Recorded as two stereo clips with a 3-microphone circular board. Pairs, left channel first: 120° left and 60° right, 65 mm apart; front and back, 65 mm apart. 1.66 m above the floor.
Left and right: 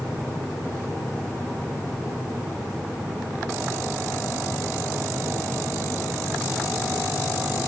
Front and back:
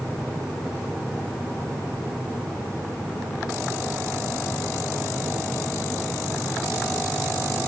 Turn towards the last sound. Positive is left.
No sound to turn to.